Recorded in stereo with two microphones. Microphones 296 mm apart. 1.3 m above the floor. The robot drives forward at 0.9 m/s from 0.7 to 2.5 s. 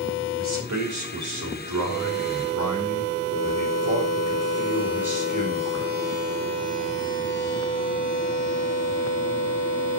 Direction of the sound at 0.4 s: 65° right (ahead or behind).